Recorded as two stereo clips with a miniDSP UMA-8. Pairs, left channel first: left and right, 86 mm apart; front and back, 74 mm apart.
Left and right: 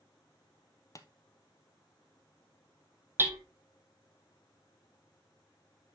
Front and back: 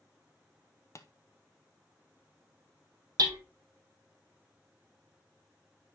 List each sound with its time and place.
0.9 s tapping: 45° left, 0.6 m
3.2 s hammering: 150° right, 1.3 m